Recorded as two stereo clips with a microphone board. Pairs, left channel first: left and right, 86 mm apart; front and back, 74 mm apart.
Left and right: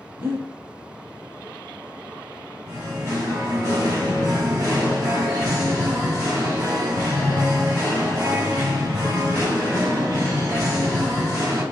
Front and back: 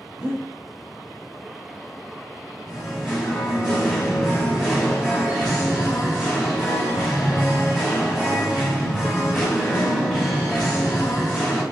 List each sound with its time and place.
0.2 s breathing: 120° right, 1.4 m
2.7 s singing: 95° right, 1.7 m